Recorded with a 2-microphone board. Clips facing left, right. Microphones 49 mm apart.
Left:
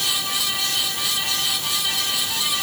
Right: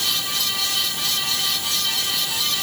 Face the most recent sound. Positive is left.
No sound to turn to.